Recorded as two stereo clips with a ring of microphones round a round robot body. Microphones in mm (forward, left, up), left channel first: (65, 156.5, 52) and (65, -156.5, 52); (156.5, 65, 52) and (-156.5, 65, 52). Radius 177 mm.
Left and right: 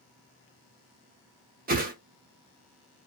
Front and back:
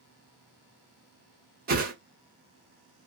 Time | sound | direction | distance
1.7 | a whoosh | 135° right | 0.8 m